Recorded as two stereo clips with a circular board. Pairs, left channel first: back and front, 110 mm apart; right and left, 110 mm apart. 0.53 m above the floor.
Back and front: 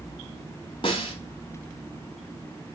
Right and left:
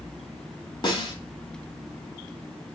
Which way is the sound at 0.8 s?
135° right.